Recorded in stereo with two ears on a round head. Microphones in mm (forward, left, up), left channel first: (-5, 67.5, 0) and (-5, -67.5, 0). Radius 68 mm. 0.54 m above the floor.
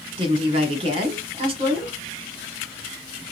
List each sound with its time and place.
0.2 s a woman speaking: 40° right (ahead or behind), 1.5 m